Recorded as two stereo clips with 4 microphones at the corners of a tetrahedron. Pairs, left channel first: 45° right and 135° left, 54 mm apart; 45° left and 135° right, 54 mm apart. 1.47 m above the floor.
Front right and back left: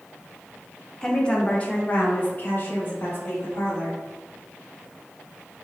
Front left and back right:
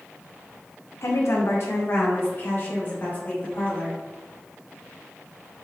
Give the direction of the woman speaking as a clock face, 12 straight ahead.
11 o'clock.